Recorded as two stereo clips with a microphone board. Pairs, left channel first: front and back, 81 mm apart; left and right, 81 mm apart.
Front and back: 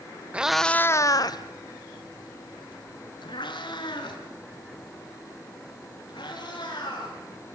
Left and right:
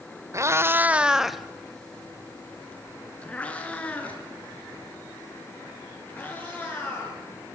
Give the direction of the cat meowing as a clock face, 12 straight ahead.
4 o'clock.